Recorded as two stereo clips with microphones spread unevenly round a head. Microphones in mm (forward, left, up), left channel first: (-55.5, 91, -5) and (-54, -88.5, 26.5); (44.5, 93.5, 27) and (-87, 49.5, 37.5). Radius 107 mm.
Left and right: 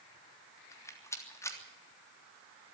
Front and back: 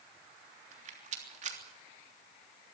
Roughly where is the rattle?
Behind.